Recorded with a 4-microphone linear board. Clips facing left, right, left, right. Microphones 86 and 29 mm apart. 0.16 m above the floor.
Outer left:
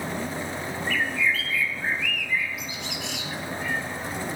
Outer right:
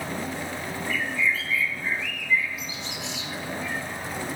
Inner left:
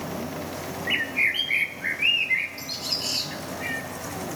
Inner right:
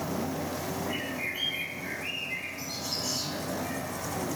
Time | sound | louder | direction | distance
0.9 | a bird | outer left 1 dB, inner left 9 dB | 65° left (ahead or behind) | 0.9 m